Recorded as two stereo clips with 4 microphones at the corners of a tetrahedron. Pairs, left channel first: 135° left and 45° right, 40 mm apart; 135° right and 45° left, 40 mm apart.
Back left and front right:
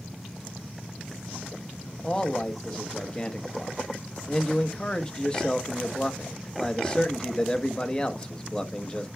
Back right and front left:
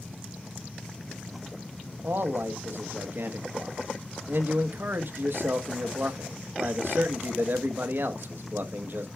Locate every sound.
2.0 s a man speaking: 70° left, 0.9 m